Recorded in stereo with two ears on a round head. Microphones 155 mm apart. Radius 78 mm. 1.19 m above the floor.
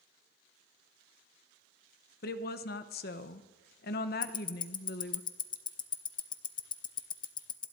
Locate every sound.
2.2 s a woman speaking: 60° left (ahead or behind), 0.9 m
4.2 s ticking: 25° left (ahead or behind), 0.7 m